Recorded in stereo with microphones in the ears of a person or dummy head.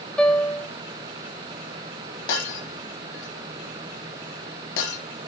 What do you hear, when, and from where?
0.2 s a piano: 5° left (ahead or behind), 1.2 m
2.3 s breaking glass: 60° left (ahead or behind), 3.5 m